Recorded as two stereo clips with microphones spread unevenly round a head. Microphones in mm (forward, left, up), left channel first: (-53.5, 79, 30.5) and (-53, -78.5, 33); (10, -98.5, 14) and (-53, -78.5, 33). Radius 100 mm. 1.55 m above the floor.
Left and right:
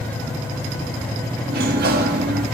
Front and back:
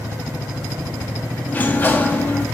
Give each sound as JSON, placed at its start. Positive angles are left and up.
{"t": 1.5, "sound": "a sliding door", "azimuth_deg": -85, "distance_m": 1.5}